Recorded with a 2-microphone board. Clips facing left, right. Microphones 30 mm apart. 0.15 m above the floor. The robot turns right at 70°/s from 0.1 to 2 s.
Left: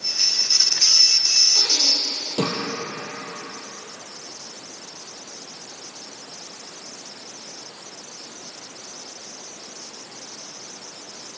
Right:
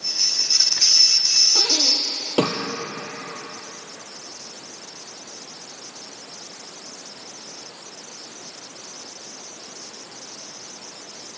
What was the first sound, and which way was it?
Breathing, 80° right.